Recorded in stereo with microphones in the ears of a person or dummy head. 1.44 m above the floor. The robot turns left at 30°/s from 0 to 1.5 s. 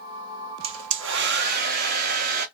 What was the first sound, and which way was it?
A hair dryer, 70° right (ahead or behind).